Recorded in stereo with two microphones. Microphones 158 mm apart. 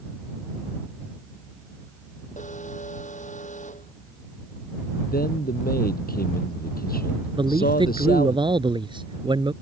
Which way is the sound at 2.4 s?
50° left (ahead or behind).